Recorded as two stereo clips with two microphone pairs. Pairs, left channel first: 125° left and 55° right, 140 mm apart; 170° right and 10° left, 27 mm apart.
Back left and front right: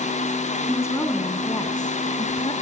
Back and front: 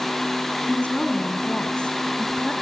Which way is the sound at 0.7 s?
165° right.